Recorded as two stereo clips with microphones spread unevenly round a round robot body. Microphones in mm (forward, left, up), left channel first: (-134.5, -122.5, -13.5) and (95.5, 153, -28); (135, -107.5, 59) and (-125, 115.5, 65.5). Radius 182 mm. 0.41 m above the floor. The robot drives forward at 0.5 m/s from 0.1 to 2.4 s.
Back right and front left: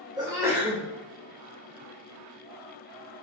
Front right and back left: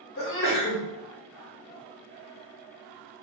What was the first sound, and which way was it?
A sneeze, 25° right.